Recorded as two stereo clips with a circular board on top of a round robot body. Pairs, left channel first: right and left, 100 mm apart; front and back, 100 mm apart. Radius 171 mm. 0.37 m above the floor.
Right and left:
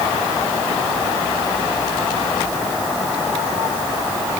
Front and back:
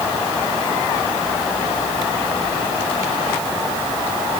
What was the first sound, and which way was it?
Only background noise.